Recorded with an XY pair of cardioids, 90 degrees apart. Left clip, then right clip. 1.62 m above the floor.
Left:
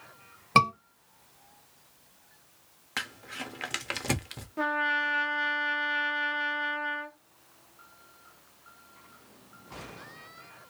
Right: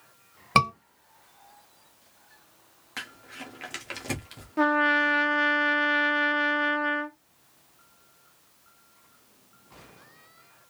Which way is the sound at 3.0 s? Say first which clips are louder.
Left 3 dB; 45° left.